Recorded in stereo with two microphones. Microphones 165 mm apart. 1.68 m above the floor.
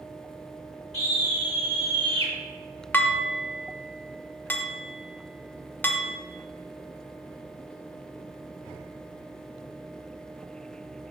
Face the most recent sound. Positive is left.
turn(degrees=10)  # may be behind; listen again after turning